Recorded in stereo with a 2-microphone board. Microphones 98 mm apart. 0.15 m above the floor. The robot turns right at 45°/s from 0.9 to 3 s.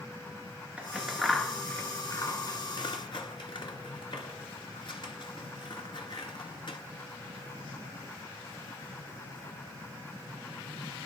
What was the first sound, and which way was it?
Scissors, 10° right (ahead or behind).